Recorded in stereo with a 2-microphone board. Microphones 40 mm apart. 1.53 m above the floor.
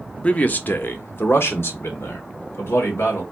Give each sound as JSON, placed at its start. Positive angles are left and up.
{"t": 0.2, "sound": "a man speaking", "side_deg": 30, "distance_m": 0.7}